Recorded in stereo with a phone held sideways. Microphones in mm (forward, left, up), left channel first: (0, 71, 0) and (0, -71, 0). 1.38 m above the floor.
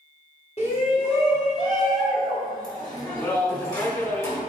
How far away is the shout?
About 2.5 m.